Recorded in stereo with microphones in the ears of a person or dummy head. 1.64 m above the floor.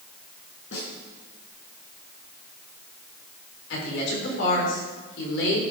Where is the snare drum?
70° left (ahead or behind), 6.5 m.